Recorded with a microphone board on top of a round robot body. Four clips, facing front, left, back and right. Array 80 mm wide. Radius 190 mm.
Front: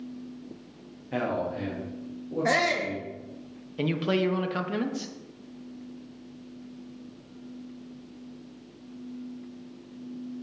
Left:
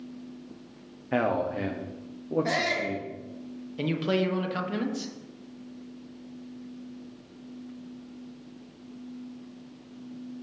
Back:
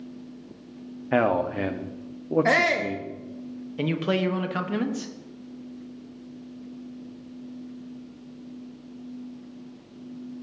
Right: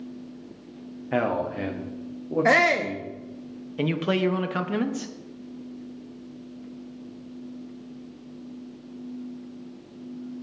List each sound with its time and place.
1.1 s a man speaking: 175° right, 1.3 m
2.5 s a shout: 110° right, 0.9 m
3.8 s a man speaking: 110° right, 1.2 m